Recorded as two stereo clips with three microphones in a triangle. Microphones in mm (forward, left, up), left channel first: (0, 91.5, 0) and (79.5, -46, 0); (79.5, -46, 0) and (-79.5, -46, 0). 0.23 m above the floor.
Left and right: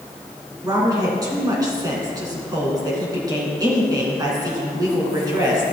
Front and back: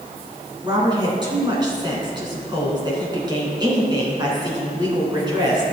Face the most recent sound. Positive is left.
turn(degrees=-120)